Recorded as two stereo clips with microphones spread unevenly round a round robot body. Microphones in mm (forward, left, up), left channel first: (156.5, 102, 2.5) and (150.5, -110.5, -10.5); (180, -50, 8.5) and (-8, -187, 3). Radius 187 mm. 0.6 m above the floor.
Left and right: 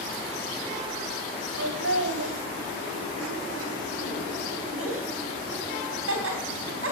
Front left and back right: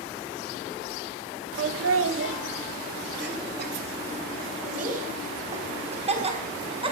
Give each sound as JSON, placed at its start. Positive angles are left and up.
{"t": 1.6, "sound": "laughter", "azimuth_deg": -125, "distance_m": 2.0}